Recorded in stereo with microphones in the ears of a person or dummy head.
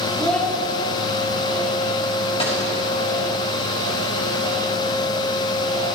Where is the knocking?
I don't hear knocking.